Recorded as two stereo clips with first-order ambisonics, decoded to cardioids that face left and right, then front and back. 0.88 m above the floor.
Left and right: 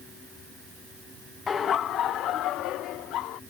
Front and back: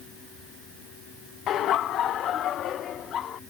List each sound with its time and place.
1.5 s laughter: 30° left; by 3.4 s 55° left